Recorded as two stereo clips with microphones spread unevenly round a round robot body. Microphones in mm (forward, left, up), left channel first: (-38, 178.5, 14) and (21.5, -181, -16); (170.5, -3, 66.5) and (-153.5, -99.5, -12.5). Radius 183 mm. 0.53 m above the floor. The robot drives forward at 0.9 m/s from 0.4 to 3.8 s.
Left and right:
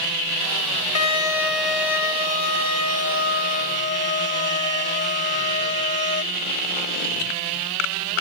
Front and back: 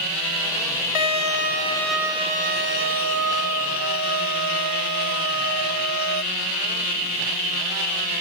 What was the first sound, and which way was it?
A violin, 50° left.